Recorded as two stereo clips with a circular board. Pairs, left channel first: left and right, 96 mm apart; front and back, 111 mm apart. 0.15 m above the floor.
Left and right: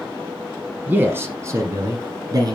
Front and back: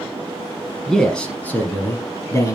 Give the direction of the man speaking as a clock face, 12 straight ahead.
3 o'clock.